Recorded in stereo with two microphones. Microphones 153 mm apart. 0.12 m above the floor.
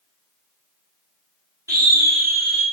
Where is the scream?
20° right (ahead or behind), 4.5 m.